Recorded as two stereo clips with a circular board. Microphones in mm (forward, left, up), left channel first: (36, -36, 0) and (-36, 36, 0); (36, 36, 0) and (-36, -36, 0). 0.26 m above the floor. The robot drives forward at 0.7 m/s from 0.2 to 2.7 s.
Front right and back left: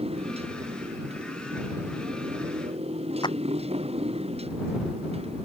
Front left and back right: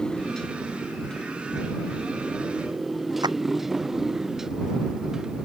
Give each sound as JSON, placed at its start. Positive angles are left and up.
{"t": 0.0, "sound": "a motorcycle", "azimuth_deg": 130}
{"t": 3.2, "sound": "a clap", "azimuth_deg": -90}